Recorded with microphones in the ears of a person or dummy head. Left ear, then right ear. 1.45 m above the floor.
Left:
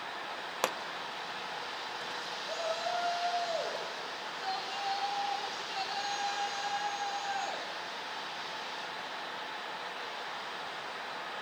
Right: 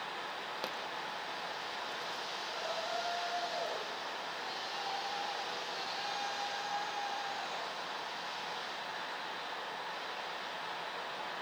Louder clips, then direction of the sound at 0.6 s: Left 10 dB; 40° left (ahead or behind).